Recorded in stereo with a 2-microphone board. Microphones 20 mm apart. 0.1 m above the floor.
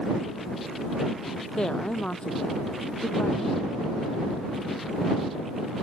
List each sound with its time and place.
1.6 s a woman speaking: 55° left (ahead or behind)